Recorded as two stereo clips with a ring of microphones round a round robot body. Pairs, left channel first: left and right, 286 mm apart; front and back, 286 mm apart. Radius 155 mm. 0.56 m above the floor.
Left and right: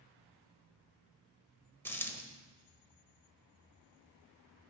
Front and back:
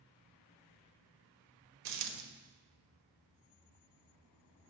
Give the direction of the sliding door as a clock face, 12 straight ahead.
No sliding door in this recording.